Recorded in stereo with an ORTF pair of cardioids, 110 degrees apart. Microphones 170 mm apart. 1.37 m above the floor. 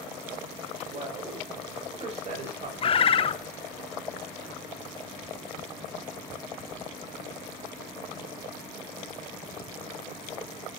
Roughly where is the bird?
Ahead left.